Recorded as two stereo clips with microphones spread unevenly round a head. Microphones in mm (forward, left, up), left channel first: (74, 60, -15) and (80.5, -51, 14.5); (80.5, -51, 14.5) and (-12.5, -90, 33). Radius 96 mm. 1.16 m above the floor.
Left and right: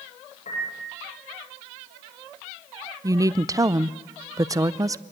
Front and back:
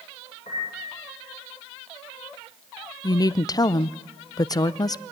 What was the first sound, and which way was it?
A piano, 80° left.